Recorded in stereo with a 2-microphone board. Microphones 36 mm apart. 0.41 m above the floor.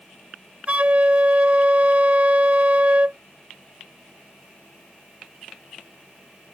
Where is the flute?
40° right (ahead or behind).